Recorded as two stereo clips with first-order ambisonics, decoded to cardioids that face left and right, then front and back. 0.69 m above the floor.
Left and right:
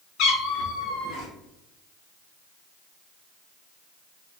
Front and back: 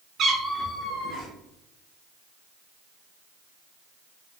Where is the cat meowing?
125° left, 0.7 m; by 1.3 s 50° left, 1.5 m.